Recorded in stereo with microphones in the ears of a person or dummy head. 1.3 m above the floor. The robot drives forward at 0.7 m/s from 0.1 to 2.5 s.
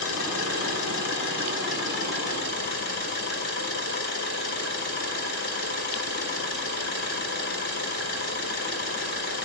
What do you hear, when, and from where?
0.0 s an engine running: 75° left (ahead or behind), 4 m; by 9.4 s 55° left (ahead or behind), 4.5 m